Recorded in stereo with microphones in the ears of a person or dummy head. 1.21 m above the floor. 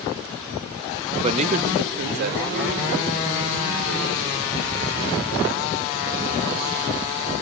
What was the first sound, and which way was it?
A man speaking, 30° right (ahead or behind).